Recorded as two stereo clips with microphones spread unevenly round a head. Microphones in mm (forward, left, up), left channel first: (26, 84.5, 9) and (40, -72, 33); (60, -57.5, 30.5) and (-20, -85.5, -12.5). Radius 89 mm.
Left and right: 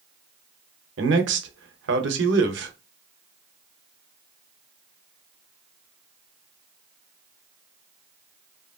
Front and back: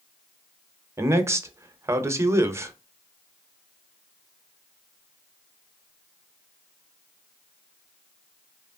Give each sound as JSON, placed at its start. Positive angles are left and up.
{"t": 1.0, "sound": "a man speaking", "azimuth_deg": -105, "distance_m": 0.8}